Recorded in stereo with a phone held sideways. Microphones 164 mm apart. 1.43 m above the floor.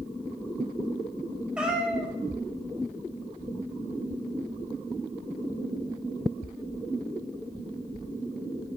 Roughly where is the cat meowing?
Centre.